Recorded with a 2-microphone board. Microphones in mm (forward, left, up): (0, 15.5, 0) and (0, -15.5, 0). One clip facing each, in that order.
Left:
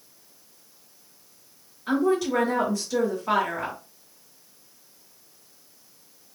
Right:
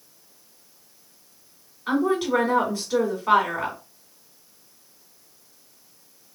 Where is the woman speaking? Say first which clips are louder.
Right 1 dB; 35° right (ahead or behind), 1.9 m.